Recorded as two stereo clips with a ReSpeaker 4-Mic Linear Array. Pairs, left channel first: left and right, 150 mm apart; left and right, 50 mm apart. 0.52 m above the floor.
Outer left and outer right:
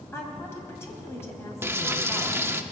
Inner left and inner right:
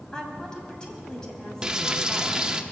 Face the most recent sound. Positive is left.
turn(degrees=-15)  # may be behind; listen again after turning